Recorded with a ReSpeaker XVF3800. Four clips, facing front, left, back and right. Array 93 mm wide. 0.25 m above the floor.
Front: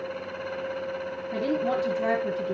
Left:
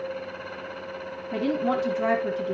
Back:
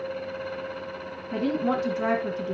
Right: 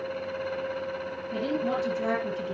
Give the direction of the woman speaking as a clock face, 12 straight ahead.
7 o'clock.